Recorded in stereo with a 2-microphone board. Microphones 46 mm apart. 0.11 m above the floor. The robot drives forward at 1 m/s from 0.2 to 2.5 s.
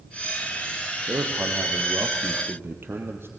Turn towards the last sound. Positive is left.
turn(degrees=-60)  # may be behind; listen again after turning